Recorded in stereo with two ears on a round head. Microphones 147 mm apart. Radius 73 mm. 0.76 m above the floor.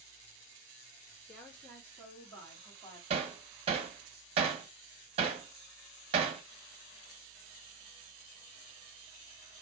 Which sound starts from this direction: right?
Hammering, at 3.1 s.